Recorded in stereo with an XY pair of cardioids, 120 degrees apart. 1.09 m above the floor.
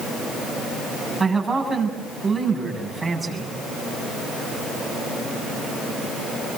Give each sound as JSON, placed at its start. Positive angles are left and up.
{"t": 1.2, "sound": "a man speaking", "azimuth_deg": -15, "distance_m": 7.0}